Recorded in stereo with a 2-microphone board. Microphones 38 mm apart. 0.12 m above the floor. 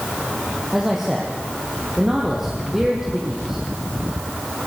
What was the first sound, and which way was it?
A man speaking, 10° right (ahead or behind).